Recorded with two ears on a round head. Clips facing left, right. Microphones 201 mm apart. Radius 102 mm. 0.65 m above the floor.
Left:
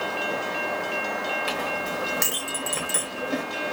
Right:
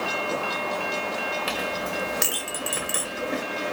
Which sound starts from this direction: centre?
A clink, at 1.5 s.